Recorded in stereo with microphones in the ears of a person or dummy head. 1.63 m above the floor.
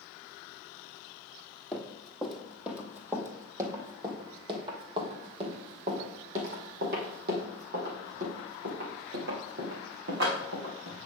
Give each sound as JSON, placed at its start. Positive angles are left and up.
{"t": 1.7, "sound": "running footsteps", "side_deg": 0, "distance_m": 2.5}